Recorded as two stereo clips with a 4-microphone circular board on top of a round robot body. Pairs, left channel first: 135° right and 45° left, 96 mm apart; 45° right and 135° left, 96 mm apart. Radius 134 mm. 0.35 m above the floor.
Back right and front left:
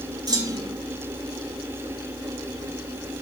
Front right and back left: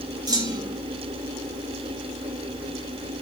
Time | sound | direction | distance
0.3 | a clunk | 90° left | 5 m